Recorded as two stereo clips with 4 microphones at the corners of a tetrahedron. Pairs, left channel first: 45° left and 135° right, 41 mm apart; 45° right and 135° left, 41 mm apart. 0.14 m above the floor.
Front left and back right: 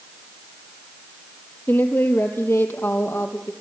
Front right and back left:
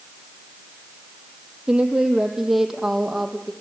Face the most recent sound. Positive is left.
turn(degrees=45)